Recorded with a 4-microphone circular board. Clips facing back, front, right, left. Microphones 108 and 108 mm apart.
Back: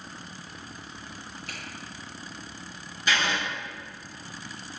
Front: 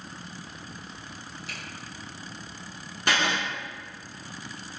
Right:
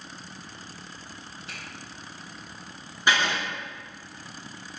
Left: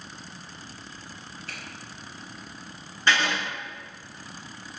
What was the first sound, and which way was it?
A finger snap, 155° right.